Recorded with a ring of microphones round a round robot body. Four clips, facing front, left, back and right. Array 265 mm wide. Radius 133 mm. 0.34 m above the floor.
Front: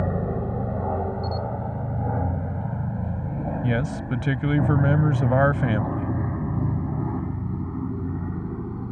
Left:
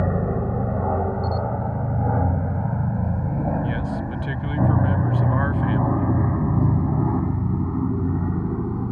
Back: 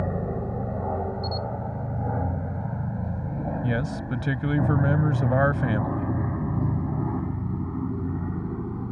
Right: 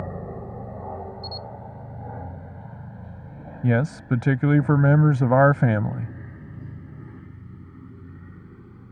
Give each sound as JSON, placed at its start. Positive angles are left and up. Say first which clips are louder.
{"t": 0.0, "sound": "an aircraft", "louder": "left 10 dB, front 2 dB", "azimuth_deg": 75}
{"t": 1.2, "sound": "a camera shutter", "louder": "left 12 dB, front 2 dB", "azimuth_deg": -75}
{"t": 3.6, "sound": "a man speaking", "louder": "right 3 dB, front 4 dB", "azimuth_deg": -85}